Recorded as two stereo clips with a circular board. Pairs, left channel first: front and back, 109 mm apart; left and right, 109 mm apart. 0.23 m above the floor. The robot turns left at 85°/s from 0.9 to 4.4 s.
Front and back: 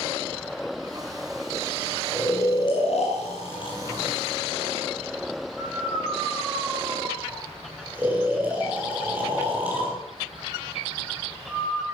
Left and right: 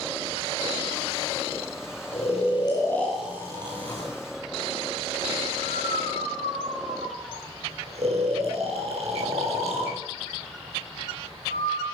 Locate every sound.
2.1 s snoring: 90° left, 4.5 m; by 11.8 s 105° right, 4.5 m